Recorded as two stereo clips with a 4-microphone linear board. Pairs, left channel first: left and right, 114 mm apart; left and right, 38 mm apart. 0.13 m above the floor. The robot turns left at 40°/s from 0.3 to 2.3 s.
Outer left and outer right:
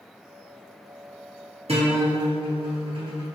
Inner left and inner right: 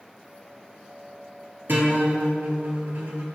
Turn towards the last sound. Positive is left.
turn(degrees=-55)  # may be behind; listen again after turning